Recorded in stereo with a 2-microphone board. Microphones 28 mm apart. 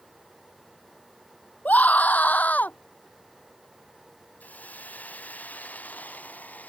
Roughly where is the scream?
Left.